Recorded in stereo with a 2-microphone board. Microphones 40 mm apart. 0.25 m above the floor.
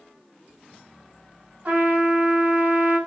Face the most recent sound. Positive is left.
turn(degrees=-40)  # may be behind; listen again after turning